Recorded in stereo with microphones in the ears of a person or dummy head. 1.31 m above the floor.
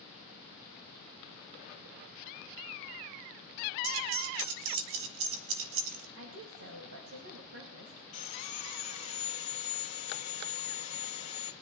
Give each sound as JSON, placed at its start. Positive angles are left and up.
{"t": 3.8, "sound": "keys jangling", "side_deg": -75, "distance_m": 1.3}
{"t": 6.2, "sound": "a woman speaking", "side_deg": -80, "distance_m": 1.9}
{"t": 8.1, "sound": "sawing", "side_deg": 35, "distance_m": 1.7}